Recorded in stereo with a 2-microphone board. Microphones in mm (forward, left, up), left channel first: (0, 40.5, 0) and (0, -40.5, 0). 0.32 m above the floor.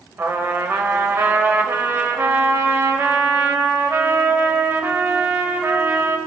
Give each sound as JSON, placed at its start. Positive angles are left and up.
{"t": 0.2, "sound": "a trumpet", "side_deg": -30, "distance_m": 1.3}